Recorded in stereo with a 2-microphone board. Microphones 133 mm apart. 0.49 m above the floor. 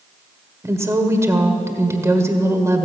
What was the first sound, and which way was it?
A woman speaking, 20° right (ahead or behind).